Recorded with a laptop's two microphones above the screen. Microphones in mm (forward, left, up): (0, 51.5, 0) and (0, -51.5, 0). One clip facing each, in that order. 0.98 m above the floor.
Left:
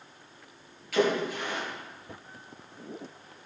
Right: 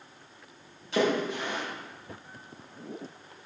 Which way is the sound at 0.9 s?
30° right (ahead or behind).